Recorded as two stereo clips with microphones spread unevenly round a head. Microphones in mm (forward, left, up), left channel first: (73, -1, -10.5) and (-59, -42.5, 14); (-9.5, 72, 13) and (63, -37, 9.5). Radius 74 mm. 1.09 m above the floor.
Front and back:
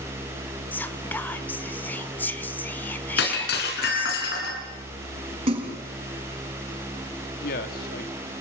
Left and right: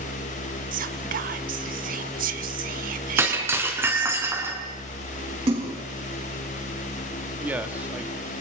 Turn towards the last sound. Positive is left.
turn(degrees=20)